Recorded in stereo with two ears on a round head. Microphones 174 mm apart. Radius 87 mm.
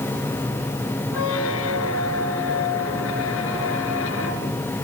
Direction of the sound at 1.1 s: 80° left.